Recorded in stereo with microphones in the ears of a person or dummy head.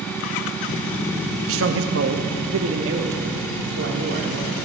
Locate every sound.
1.5 s a man speaking: 60° right (ahead or behind), 0.8 m; by 4.7 s 65° right (ahead or behind), 2.5 m